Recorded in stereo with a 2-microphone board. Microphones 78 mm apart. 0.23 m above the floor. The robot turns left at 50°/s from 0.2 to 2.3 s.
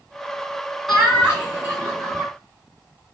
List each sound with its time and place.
0.9 s laughter: straight ahead, 2.0 m; by 2.3 s 65° right, 2.0 m